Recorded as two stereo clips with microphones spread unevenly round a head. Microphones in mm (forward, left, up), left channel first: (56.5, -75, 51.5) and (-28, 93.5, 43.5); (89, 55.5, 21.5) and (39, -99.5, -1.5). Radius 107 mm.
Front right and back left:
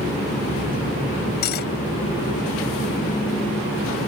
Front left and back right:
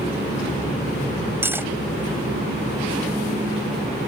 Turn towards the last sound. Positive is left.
turn(degrees=-30)